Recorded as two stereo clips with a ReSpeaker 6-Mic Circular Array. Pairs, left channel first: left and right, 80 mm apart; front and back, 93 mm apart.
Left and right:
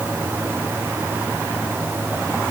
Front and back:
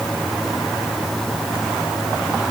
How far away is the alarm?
I don't hear an alarm.